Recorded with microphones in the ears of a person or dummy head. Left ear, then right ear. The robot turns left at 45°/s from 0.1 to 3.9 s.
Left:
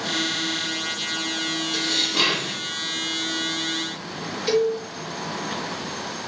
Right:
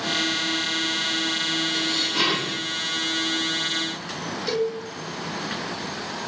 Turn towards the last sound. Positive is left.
turn(degrees=10)  # may be behind; listen again after turning